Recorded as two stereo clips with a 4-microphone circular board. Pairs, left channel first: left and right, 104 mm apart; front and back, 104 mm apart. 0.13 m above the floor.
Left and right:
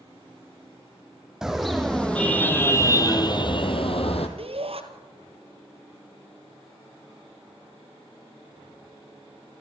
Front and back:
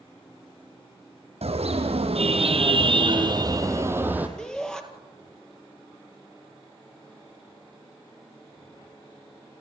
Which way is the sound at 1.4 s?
175° right.